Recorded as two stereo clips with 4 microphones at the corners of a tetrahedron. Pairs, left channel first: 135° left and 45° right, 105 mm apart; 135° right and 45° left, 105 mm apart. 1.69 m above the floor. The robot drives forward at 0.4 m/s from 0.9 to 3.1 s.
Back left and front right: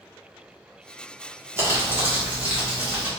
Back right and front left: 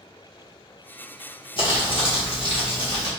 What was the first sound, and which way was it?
Crumpling, 105° right.